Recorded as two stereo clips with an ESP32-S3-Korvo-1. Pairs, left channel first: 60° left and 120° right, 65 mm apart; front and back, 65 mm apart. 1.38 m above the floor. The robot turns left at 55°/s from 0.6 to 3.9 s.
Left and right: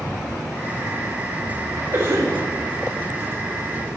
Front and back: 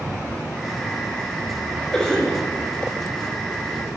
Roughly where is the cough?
Right.